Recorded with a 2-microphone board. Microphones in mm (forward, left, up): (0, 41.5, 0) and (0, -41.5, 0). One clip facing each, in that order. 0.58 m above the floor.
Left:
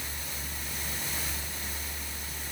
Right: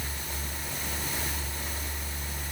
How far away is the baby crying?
I don't hear a baby crying.